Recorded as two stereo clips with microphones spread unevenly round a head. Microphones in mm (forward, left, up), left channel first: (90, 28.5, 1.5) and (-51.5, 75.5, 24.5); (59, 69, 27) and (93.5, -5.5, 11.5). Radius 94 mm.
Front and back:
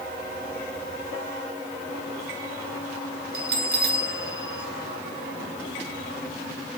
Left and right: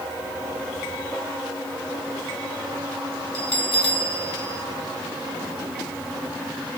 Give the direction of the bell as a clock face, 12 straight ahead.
7 o'clock.